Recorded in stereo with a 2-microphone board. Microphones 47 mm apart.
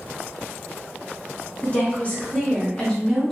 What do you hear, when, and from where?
1.6 s a woman speaking: 35° left (ahead or behind), 1.9 m; by 3.3 s 5° left (ahead or behind), 1.6 m